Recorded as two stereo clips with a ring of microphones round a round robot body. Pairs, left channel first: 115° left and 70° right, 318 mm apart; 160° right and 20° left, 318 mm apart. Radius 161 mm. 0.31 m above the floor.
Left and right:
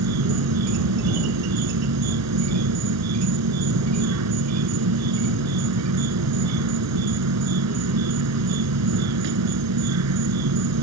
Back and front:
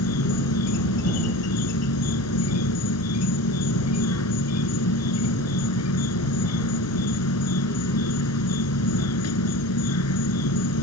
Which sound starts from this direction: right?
An insect, at 0.0 s.